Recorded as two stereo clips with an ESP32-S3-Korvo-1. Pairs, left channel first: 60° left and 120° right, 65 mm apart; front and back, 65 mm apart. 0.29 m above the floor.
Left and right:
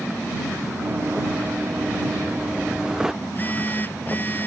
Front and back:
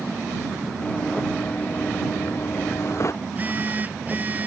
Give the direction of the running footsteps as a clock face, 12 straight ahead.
2 o'clock.